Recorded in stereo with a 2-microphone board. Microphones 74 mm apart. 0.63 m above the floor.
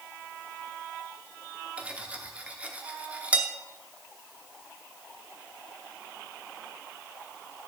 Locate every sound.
1.8 s cutlery clinking: 20° right (ahead or behind), 0.7 m